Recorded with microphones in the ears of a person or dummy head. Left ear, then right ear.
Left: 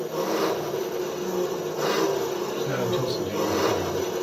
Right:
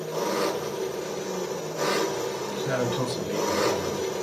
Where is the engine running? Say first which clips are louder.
Left 1 dB; 45° right (ahead or behind), 1.1 m.